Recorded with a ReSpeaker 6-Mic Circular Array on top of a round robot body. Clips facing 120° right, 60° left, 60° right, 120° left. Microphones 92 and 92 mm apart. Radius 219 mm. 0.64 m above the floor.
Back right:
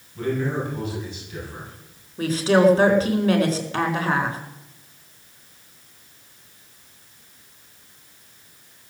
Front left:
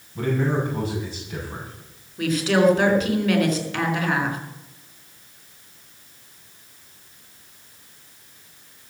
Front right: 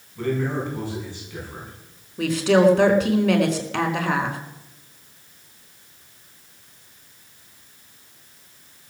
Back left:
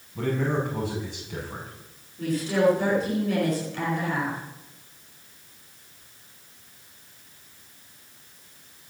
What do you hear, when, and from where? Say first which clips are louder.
0.1 s a man speaking: front left 2 dB, front right 1 dB; 110° left, 6.5 m
2.2 s a woman speaking: back right 2 dB, front right 6 dB; 65° right, 4.5 m